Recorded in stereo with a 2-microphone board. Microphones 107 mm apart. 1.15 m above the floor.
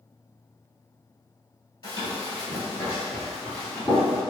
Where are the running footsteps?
40° left (ahead or behind), 1.4 m; by 4.2 s centre (ahead or behind), 1.6 m.